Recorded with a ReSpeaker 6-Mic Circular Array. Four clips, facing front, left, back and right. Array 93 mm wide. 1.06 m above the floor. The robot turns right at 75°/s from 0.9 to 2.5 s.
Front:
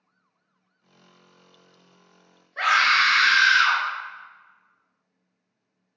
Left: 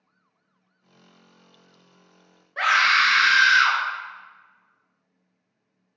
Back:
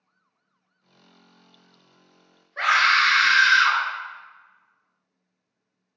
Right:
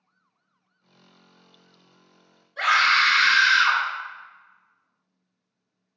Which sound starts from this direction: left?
A scream, at 2.6 s.